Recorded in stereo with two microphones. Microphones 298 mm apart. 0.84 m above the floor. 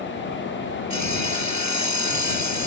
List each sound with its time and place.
0.9 s sawing: 65° right (ahead or behind)